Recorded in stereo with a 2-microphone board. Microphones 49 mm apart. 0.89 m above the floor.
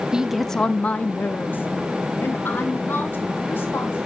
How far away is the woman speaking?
About 0.6 m.